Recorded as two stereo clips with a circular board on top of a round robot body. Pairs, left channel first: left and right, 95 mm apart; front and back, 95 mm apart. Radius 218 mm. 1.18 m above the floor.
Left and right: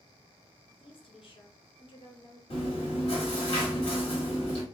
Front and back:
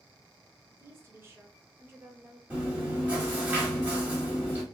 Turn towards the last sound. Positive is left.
turn(degrees=110)